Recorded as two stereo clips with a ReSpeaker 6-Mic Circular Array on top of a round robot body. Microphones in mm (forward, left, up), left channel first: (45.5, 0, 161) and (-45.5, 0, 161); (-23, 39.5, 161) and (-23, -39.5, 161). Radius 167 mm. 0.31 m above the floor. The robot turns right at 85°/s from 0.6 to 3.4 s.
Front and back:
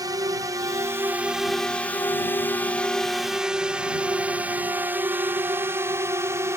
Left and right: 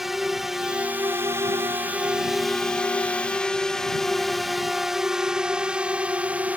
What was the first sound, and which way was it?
A drone, 175° right.